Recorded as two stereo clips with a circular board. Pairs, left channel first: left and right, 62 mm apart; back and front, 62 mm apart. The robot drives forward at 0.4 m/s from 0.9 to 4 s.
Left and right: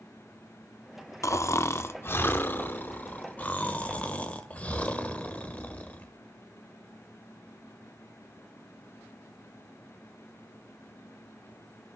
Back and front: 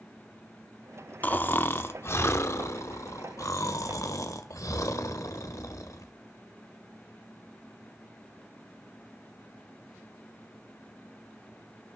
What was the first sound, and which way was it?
Snoring, 120° left.